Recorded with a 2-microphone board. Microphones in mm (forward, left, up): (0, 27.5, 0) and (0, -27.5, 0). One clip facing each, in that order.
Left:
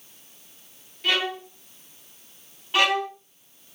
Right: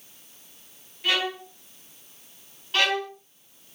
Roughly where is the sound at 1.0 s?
Centre.